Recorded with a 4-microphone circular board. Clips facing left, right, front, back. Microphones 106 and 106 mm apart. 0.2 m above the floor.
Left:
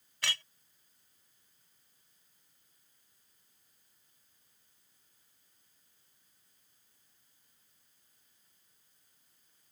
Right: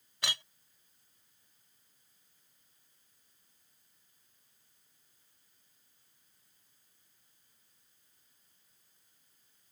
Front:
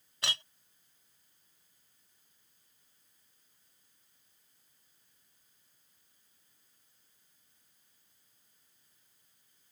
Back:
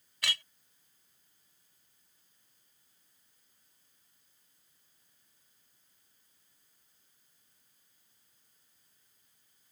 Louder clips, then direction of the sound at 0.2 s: Even, even; 35° right.